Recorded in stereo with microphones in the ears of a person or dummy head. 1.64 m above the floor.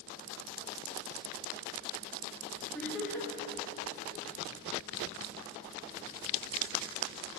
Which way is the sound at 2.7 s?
5° left (ahead or behind).